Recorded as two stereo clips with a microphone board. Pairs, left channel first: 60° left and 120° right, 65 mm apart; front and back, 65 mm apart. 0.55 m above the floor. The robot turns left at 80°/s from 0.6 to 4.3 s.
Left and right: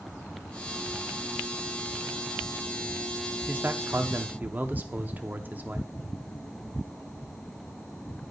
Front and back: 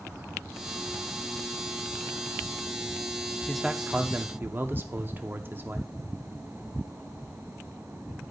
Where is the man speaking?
90° right, 0.7 m; by 5.9 s 160° right, 0.7 m.